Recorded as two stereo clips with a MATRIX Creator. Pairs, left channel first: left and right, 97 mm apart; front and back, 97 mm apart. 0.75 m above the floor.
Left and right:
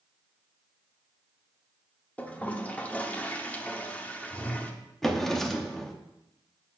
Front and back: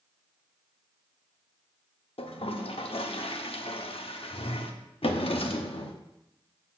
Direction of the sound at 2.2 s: 15° left.